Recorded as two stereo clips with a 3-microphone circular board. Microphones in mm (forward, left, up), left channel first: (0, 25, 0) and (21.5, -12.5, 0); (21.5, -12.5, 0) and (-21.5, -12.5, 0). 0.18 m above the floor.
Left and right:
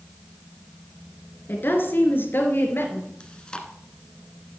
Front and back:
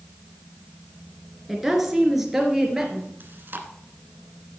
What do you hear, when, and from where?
1.5 s a woman speaking: 95° left, 2.5 m; by 3.1 s 100° left, 3.5 m
3.2 s chewing: 175° right, 1.5 m